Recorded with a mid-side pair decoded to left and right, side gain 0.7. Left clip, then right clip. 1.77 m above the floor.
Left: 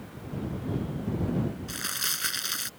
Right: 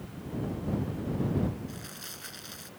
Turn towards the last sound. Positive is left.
turn(degrees=55)